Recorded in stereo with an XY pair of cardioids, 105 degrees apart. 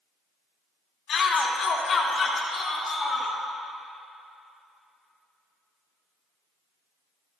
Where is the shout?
60° left, 3 m; by 3.4 s 35° left, 5.5 m.